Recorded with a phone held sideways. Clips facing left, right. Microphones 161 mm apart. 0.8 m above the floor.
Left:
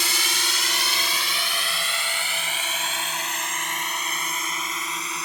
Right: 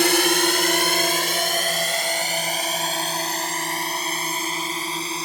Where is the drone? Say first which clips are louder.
Right 14 dB; 60° right (ahead or behind); by 5.2 s 30° right (ahead or behind).